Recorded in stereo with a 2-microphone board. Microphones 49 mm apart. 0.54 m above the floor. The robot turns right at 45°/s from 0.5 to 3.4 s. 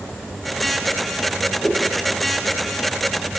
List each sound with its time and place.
1.6 s a whoosh: 25° left (ahead or behind), 5 m; by 1.8 s 20° left (ahead or behind), 5 m